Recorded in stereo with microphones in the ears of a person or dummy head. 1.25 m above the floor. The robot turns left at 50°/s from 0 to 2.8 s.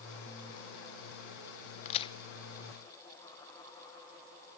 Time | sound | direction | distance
1.9 | a crack | 40° left (ahead or behind) | 0.7 m